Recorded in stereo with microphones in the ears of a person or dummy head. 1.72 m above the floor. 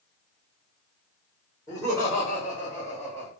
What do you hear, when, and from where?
1.7 s laughter: 20° left (ahead or behind), 1.4 m; by 3.3 s 15° right (ahead or behind), 0.9 m